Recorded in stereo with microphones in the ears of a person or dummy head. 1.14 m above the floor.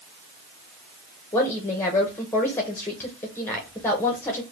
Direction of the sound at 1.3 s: 15° left (ahead or behind).